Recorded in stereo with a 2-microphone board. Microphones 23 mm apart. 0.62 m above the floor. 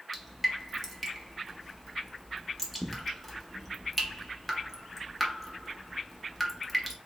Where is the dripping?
5° right (ahead or behind), 0.9 m.